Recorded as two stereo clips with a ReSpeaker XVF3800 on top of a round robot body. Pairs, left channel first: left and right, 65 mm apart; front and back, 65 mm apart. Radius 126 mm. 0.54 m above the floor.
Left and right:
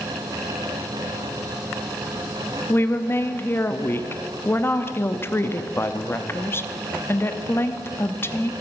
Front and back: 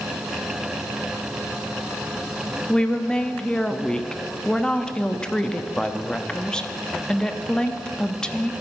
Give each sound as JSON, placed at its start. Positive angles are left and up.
{"t": 2.7, "sound": "a woman speaking", "azimuth_deg": 75, "distance_m": 1.0}